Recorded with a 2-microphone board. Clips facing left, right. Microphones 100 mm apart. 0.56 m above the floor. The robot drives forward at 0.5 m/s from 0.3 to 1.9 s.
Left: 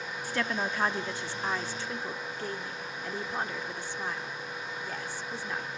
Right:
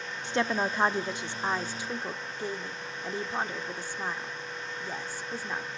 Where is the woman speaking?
25° right (ahead or behind), 0.6 m; by 5.7 s 15° right (ahead or behind), 1.0 m.